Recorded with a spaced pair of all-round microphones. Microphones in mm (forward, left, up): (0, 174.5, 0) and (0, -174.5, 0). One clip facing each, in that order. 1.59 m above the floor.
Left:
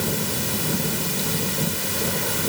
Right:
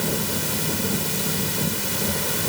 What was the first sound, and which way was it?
Only background noise.